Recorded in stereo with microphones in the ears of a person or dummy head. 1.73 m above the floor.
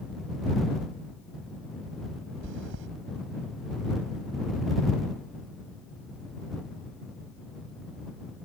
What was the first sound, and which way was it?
Chewing, 70° right (ahead or behind).